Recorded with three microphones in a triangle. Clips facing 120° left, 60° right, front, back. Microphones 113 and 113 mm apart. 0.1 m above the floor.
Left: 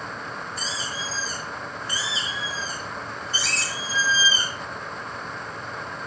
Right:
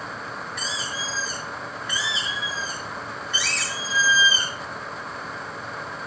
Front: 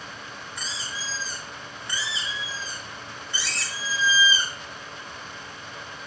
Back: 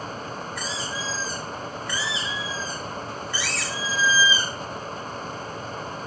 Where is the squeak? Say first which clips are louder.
Right 1 dB, back 6 dB; 65° left, 8 m.